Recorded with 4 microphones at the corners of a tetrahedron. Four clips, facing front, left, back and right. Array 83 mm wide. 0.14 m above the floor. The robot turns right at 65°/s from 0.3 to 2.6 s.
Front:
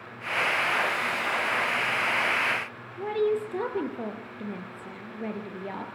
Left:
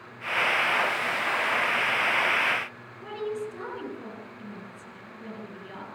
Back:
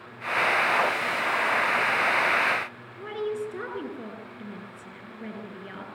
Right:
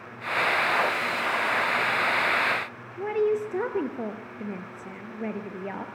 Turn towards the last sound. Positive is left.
turn(degrees=-70)